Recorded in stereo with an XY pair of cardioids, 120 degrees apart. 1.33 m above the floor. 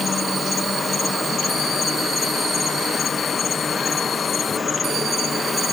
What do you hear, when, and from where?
0.0 s an insect: 30° left, 1.1 m